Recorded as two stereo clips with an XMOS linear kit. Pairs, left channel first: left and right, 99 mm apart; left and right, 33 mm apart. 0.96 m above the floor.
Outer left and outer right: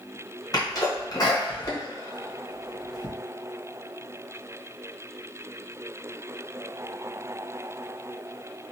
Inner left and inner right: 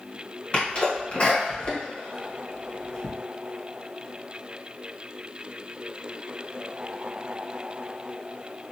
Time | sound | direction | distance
0.5 | a sneeze | 40° left (ahead or behind) | 1.1 m